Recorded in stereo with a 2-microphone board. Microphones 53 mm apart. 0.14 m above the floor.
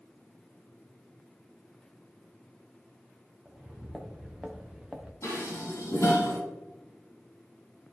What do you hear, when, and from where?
3.5 s footsteps: 10° right (ahead or behind), 2 m; by 5.1 s 15° right (ahead or behind), 1.2 m
5.2 s dishes clattering: 60° left (ahead or behind), 3.5 m